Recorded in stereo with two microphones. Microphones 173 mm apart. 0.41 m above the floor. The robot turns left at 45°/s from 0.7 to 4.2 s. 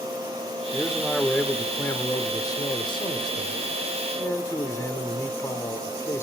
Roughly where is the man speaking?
Centre.